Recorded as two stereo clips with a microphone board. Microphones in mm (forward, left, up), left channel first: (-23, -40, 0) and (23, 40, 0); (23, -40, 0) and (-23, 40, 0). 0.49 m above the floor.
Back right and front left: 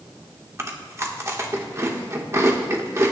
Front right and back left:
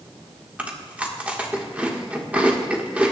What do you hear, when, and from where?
0.6 s chewing: 60° left, 1.5 m